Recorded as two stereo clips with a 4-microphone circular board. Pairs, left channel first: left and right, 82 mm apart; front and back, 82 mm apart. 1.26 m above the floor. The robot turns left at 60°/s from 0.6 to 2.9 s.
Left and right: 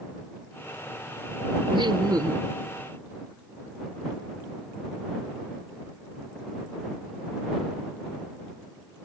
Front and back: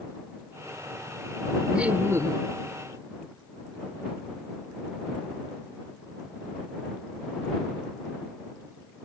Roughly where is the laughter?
Right.